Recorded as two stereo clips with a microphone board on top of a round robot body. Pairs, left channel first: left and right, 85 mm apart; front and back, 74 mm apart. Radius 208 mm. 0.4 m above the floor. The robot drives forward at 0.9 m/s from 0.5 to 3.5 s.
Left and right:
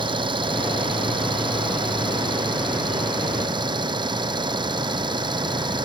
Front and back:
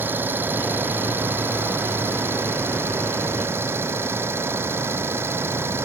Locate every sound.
0.0 s an engine running: 115° right; by 5.9 s 120° right